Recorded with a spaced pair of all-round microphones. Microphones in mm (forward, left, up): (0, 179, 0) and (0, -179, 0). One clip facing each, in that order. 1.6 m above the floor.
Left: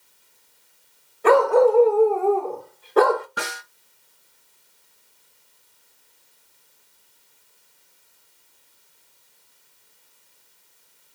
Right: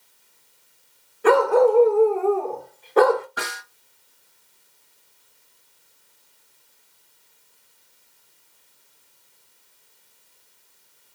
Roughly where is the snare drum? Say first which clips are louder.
Left 1 dB; left.